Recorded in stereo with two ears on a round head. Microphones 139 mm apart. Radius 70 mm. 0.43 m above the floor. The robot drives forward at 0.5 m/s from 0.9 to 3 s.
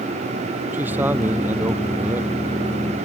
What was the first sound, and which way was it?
A man speaking, 10° right (ahead or behind).